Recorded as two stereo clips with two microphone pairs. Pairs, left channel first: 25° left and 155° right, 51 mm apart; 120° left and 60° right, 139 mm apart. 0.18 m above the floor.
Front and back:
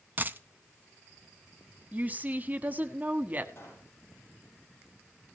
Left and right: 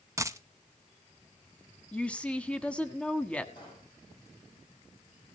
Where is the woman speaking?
160° right, 1.2 m.